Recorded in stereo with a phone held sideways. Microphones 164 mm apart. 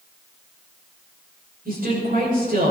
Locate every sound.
1.6 s a woman speaking: 60° right (ahead or behind), 6.5 m